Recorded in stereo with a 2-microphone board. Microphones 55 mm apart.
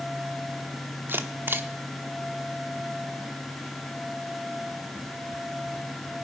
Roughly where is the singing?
I don't hear singing.